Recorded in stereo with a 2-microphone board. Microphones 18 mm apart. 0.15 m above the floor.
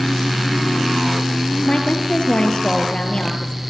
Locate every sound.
1.6 s a woman speaking: 50° left (ahead or behind), 4 m